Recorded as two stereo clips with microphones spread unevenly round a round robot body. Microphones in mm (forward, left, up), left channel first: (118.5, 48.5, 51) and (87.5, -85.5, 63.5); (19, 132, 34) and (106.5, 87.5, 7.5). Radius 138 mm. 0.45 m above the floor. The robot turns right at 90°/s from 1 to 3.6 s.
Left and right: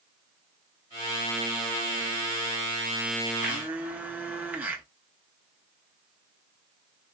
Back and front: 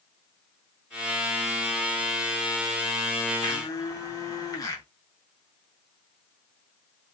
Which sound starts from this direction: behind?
A blender, at 3.4 s.